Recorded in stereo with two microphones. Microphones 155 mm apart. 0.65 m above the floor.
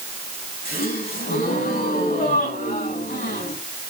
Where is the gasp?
80° left, 6.5 m.